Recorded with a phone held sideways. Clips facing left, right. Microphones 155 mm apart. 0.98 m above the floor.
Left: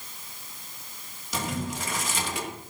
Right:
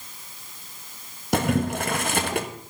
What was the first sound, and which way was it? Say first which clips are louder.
Boiling: right 9 dB; 65° right (ahead or behind).